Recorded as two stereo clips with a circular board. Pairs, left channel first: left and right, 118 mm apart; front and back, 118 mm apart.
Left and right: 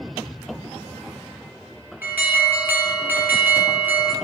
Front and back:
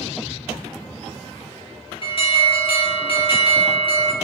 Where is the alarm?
20° right, 1.8 m.